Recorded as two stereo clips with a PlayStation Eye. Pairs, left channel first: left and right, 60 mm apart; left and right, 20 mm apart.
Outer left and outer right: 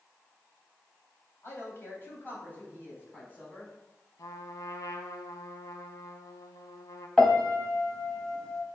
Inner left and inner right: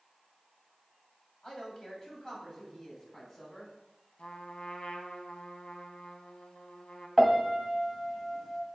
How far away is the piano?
About 1.0 m.